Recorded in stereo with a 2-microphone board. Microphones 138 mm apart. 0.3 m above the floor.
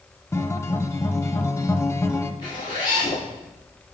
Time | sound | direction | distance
0.3 | a guitar | 20° left (ahead or behind) | 0.7 m
2.4 | a zipper | 35° left (ahead or behind) | 5.5 m